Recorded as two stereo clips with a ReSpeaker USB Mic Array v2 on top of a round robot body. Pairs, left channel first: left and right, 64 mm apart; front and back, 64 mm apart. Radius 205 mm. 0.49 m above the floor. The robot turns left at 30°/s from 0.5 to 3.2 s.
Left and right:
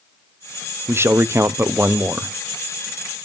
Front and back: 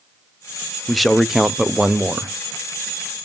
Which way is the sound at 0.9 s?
85° right.